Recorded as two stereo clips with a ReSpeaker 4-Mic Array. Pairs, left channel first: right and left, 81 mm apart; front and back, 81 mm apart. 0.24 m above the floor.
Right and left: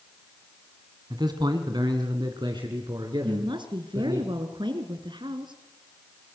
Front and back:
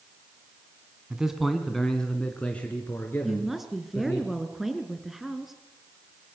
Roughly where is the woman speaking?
Left.